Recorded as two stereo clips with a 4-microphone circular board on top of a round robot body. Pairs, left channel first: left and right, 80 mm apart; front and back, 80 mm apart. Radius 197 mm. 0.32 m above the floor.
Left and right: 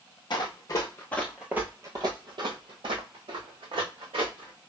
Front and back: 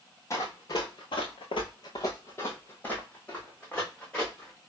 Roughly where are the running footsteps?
Ahead left.